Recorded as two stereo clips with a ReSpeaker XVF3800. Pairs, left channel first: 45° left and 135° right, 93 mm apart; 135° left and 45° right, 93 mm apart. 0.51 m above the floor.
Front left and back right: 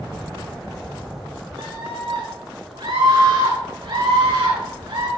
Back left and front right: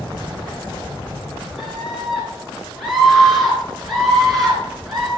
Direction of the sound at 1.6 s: 135° right.